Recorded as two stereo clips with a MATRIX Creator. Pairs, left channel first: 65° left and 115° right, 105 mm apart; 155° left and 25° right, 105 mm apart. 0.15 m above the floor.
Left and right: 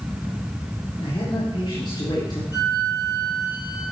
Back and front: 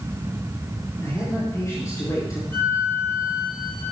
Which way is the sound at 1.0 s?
100° left.